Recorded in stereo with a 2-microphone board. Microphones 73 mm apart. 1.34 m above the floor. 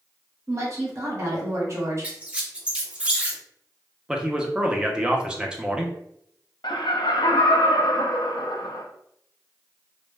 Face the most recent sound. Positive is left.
turn(degrees=75)  # may be behind; listen again after turning